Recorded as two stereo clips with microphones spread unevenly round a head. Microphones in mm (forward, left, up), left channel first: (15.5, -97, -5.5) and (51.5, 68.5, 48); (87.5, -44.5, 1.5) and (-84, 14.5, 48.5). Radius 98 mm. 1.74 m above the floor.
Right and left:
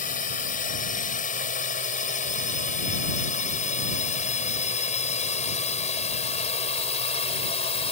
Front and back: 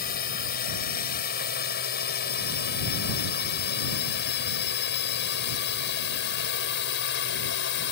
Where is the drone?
60° right; by 7.9 s 45° right.